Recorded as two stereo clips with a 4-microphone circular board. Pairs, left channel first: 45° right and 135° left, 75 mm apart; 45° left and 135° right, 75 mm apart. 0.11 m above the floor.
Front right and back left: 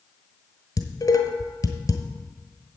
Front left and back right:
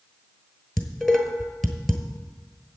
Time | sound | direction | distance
0.8 | dishes clattering | 40° right | 1.2 m